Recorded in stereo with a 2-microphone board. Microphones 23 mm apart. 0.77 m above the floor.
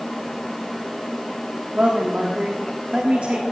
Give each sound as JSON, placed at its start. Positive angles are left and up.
{"t": 1.8, "sound": "a man speaking", "side_deg": -65, "distance_m": 1.6}